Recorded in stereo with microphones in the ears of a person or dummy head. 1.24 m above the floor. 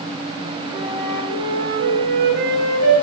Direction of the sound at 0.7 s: 65° right (ahead or behind).